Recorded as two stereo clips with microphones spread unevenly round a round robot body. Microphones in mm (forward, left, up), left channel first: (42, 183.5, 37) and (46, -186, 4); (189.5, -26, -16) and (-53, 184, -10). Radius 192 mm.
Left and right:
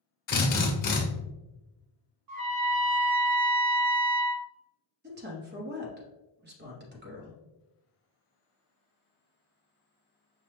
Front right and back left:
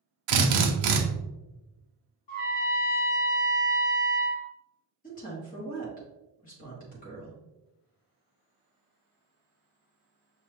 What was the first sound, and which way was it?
A drill, 160° left.